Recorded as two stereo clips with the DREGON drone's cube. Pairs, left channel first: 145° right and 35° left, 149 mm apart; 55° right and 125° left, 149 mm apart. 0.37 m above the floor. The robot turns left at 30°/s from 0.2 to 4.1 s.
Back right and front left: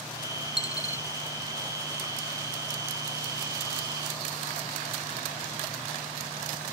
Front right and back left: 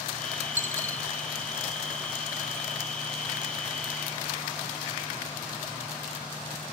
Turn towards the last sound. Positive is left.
turn(degrees=50)